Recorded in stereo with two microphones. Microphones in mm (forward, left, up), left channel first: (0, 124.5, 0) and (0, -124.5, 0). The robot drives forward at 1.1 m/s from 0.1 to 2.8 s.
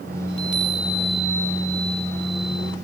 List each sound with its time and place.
0.3 s a chime: 45° left (ahead or behind); by 2.8 s 15° left (ahead or behind)